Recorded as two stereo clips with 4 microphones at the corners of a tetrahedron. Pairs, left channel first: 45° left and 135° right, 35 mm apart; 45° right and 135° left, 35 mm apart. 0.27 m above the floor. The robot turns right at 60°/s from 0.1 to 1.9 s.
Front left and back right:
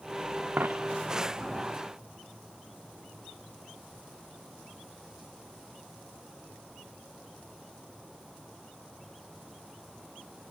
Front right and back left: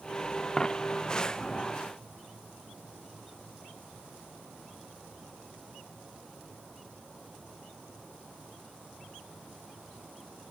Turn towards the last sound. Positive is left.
turn(degrees=-40)